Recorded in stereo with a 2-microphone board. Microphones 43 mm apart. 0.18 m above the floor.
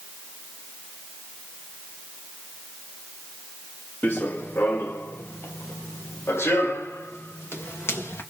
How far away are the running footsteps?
About 1.2 m.